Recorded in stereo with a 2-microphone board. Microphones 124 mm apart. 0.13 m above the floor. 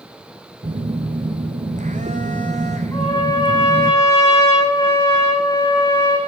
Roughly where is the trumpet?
Left.